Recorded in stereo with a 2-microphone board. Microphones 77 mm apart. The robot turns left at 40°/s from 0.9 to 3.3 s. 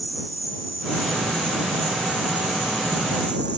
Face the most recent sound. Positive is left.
turn(degrees=-115)